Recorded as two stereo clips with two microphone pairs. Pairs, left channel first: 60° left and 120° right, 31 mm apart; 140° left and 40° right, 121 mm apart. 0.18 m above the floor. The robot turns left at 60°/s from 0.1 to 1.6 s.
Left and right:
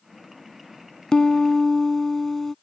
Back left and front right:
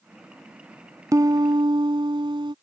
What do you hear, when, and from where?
1.1 s a piano: 10° left; by 2.5 s 20° right